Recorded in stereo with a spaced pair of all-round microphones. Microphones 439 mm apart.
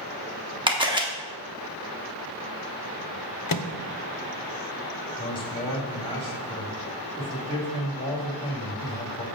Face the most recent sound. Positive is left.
turn(degrees=10)  # may be behind; listen again after turning